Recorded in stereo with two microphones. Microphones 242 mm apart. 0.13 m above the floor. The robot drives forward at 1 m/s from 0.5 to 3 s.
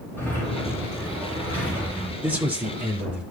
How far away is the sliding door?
About 7 m.